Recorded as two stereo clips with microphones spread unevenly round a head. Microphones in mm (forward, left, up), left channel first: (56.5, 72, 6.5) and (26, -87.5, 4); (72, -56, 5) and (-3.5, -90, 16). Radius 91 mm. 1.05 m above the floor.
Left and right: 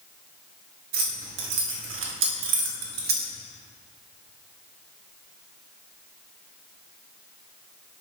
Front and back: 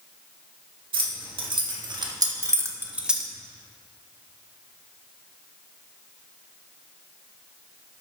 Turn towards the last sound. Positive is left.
turn(degrees=-65)